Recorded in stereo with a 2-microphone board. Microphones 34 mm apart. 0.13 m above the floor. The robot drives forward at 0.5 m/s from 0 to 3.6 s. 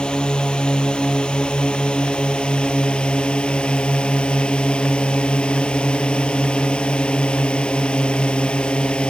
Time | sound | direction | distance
0.0 | a drone | 25° left (ahead or behind) | ?